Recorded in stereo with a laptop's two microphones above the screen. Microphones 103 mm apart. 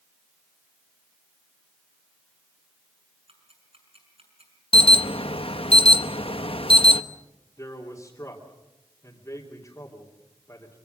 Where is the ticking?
70° right (ahead or behind), 6.5 m.